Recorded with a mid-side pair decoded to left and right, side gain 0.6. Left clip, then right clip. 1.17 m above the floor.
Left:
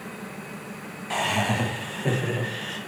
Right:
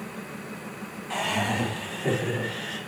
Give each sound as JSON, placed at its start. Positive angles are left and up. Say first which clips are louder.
{"t": 1.1, "sound": "laughter", "louder": "left 2 dB", "azimuth_deg": 20, "distance_m": 0.7}